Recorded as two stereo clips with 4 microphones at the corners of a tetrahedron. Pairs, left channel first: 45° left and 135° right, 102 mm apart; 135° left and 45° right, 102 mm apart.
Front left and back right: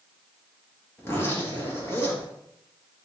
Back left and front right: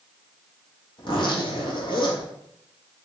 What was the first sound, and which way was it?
A zipper, 105° left.